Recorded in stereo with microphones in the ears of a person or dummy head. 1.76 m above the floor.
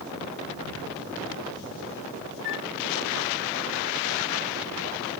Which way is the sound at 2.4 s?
60° left (ahead or behind).